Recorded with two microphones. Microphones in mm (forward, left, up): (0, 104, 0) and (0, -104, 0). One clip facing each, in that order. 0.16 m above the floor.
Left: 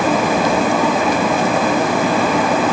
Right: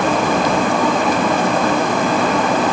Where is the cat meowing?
No cat meowing in this recording.